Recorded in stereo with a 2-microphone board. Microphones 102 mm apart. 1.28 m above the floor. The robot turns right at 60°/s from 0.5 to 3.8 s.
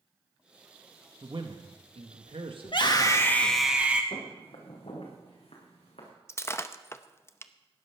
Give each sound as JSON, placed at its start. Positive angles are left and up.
{"t": 1.2, "sound": "a man speaking", "azimuth_deg": -140, "distance_m": 1.4}
{"t": 2.6, "sound": "a scream", "azimuth_deg": 120, "distance_m": 2.0}
{"t": 4.1, "sound": "footsteps", "side_deg": 65, "distance_m": 4.5}
{"t": 6.3, "sound": "breaking glass", "side_deg": 25, "distance_m": 0.6}